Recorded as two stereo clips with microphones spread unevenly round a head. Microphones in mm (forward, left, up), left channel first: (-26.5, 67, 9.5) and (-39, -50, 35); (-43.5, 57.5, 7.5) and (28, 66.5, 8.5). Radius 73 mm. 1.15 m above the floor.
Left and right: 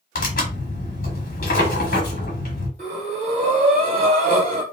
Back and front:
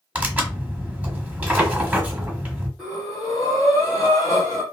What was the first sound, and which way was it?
Tearing paper, 70° left.